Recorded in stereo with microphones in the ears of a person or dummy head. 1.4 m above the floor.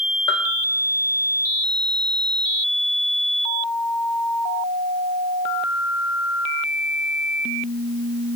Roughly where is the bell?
Left.